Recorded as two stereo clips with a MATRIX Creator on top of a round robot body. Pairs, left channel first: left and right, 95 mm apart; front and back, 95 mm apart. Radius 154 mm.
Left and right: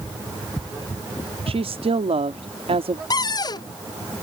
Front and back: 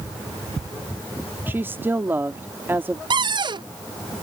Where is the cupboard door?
140° left.